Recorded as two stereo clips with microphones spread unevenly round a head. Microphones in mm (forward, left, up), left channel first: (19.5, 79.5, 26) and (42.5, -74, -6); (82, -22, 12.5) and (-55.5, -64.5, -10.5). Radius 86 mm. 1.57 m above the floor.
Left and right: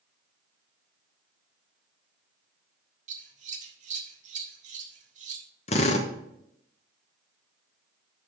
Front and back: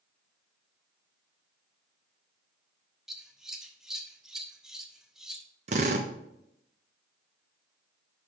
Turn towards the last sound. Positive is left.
turn(degrees=145)